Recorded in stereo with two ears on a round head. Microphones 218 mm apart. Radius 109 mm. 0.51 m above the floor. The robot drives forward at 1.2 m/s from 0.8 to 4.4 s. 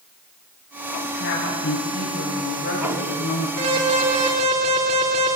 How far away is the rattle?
No rattle in this recording.